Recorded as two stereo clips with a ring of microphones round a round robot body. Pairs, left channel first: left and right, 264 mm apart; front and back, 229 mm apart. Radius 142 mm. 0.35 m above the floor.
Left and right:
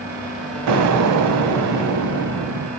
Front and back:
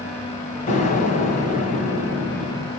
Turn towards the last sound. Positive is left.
turn(degrees=-65)